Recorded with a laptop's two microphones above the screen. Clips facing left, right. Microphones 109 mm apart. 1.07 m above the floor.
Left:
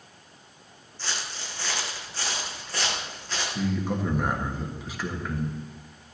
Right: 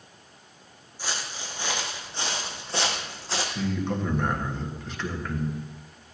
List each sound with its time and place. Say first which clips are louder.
1.0 s footsteps: right 1 dB; 10° right (ahead or behind), 3.5 m; by 3.5 s 35° right (ahead or behind), 3.5 m
3.5 s a man speaking: left 2 dB; 5° left (ahead or behind), 1.3 m